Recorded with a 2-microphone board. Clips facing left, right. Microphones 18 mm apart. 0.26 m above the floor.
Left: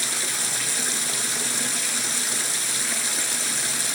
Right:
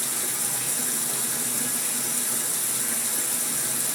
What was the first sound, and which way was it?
Running water, 45° left (ahead or behind).